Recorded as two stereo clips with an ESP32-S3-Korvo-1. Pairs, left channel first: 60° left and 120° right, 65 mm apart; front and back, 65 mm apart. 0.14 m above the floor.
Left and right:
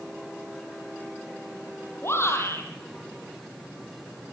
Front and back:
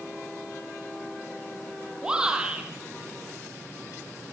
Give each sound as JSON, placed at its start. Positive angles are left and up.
{"t": 2.0, "sound": "a shout", "azimuth_deg": 105, "distance_m": 5.0}